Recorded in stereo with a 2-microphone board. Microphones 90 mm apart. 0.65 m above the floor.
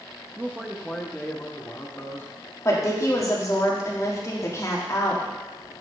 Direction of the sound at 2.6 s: 35° left (ahead or behind).